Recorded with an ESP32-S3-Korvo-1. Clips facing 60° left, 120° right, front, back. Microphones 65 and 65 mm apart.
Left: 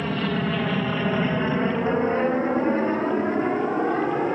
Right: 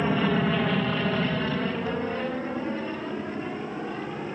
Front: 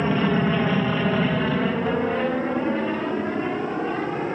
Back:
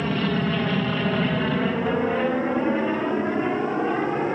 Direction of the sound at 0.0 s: 55° right.